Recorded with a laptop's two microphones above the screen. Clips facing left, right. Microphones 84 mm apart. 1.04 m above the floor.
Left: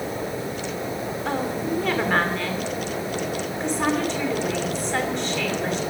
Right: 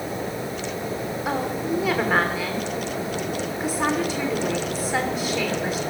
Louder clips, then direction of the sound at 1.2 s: Even; 5° right (ahead or behind).